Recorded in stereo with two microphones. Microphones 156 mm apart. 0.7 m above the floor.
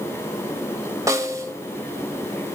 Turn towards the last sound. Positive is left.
turn(degrees=-20)  # may be behind; listen again after turning